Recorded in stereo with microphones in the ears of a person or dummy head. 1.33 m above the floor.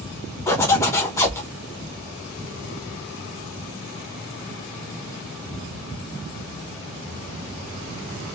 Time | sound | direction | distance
0.5 | a zipper | 10° left (ahead or behind) | 1.1 m